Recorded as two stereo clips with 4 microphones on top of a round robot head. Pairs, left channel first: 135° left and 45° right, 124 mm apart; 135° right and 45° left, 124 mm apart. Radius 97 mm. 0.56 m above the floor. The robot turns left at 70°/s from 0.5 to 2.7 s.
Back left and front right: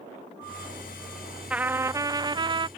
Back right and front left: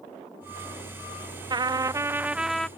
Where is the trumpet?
30° left; by 2.7 s 55° right.